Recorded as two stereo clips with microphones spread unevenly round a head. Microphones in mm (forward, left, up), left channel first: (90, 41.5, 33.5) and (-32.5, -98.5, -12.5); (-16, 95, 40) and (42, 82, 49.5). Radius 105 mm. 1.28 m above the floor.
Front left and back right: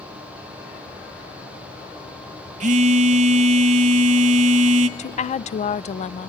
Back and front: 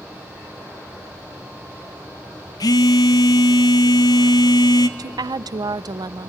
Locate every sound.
2.6 s a phone buzzing: 165° left, 0.9 m
5.0 s a woman speaking: 10° right, 0.5 m